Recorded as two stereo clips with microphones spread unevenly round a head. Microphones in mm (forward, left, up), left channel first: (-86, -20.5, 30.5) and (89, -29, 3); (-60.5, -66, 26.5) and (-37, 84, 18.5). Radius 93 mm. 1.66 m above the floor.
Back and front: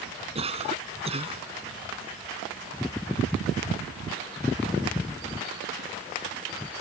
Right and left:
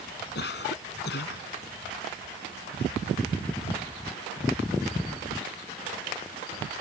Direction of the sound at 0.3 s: 60° right.